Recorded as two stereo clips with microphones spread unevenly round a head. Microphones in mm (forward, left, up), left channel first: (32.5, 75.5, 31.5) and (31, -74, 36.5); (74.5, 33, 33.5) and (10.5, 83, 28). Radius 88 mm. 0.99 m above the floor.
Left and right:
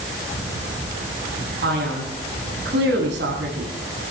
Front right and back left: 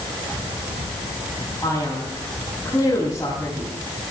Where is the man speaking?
115° right, 8 m.